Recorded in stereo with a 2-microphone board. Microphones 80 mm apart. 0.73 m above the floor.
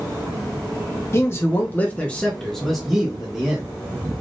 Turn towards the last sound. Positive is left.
turn(degrees=-15)  # may be behind; listen again after turning